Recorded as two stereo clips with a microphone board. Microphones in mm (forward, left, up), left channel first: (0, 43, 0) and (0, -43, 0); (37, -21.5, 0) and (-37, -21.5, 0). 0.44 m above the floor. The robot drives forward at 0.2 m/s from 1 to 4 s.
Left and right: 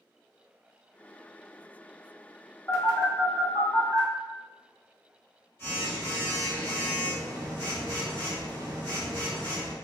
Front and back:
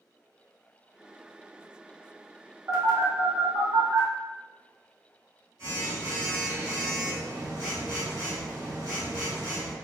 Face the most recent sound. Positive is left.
turn(degrees=150)